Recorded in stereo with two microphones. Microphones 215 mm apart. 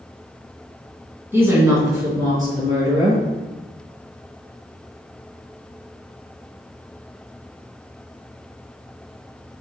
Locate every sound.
1.3 s a woman speaking: 10° right (ahead or behind), 2.5 m; by 3.2 s 20° right (ahead or behind), 5.5 m